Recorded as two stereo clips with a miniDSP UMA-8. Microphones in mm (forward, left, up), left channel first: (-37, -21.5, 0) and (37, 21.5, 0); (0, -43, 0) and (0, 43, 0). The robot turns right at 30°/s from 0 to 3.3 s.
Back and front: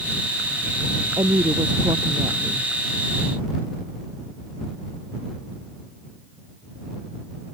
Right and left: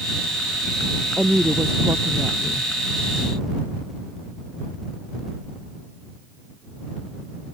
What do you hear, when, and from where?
1.2 s a woman speaking: 20° left; by 2.7 s 65° left